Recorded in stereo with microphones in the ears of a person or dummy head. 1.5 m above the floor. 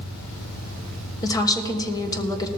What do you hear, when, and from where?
0.0 s an engine running: 60° left (ahead or behind), 2.5 m
1.2 s a woman speaking: 30° left (ahead or behind), 1.3 m